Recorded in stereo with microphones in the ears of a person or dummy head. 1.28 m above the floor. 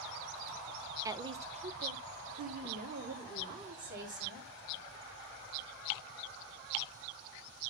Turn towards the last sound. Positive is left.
turn(degrees=-55)  # may be behind; listen again after turning